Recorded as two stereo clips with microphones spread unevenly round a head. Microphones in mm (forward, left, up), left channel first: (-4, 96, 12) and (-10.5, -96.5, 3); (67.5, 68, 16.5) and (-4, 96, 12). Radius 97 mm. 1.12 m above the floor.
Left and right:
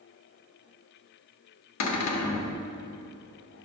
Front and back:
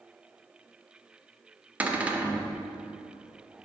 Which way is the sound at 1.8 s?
85° left.